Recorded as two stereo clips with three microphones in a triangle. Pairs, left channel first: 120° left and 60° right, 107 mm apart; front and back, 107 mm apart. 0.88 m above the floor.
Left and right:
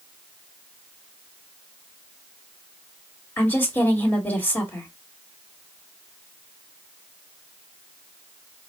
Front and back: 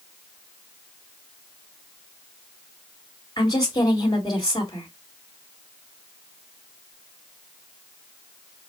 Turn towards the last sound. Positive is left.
turn(degrees=50)